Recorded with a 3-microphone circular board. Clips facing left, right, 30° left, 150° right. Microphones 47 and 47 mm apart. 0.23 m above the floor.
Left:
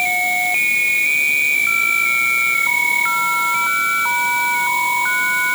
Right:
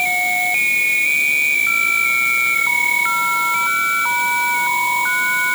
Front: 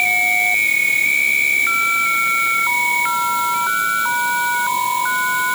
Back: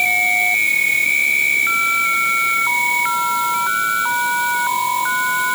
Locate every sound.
Only background noise.